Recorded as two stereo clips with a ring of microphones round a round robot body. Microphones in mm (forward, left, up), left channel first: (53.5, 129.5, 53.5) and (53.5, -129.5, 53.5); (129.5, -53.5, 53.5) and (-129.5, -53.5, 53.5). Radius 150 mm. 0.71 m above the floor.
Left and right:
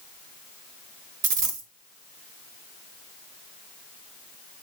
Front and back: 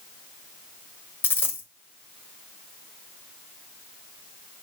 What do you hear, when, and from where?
1.2 s a dropped coin: 80° right, 1.5 m